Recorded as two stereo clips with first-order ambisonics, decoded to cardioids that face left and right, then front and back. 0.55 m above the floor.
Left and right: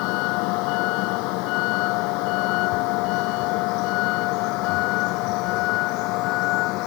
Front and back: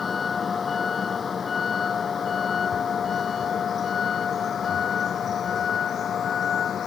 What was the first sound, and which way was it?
A vehicle, 70° left.